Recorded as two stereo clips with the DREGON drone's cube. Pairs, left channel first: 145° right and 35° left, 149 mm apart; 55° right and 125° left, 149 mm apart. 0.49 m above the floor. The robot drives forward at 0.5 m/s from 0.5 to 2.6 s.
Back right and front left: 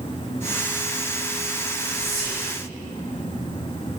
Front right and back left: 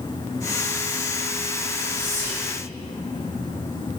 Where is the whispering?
125° left, 1.8 m; by 2.5 s 130° left, 1.9 m.